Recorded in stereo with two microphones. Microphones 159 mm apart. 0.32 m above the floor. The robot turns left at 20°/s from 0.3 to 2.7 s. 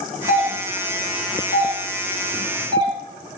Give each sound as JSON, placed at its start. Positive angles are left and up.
{"t": 0.3, "sound": "a doorbell", "side_deg": -15, "distance_m": 1.4}